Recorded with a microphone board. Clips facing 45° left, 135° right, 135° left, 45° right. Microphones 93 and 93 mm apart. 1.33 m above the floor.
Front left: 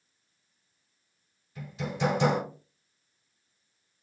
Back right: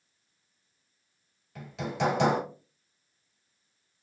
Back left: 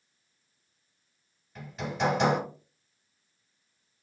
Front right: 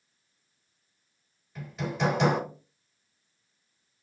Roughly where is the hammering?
Behind right.